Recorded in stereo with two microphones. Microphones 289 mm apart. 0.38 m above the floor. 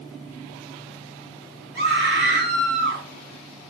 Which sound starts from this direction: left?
A scream, at 1.8 s.